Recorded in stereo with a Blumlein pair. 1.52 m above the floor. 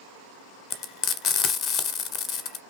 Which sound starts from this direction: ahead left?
Frying, at 0.7 s.